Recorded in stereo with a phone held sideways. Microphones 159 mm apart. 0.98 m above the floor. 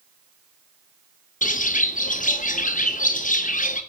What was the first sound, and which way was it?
A bird, 55° left (ahead or behind).